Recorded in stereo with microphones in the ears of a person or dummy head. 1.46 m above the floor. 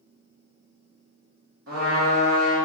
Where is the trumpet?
80° right, 1.5 m.